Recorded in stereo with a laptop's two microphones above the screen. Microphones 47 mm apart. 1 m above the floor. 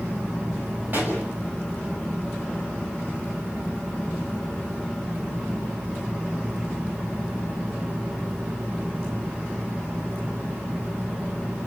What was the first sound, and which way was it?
A pop, 40° right (ahead or behind).